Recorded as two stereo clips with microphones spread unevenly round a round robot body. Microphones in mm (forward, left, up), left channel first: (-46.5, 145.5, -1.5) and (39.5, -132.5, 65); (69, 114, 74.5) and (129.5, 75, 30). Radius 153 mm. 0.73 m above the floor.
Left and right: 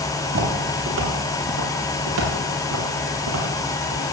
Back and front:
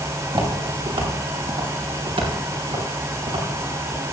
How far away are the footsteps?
About 6.5 m.